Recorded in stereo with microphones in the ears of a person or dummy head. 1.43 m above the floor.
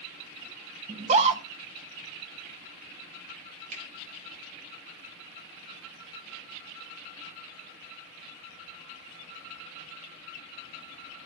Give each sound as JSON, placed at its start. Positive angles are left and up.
{"t": 0.9, "sound": "a scream", "side_deg": -40, "distance_m": 1.2}
{"t": 3.7, "sound": "a finger snap", "side_deg": -50, "distance_m": 4.5}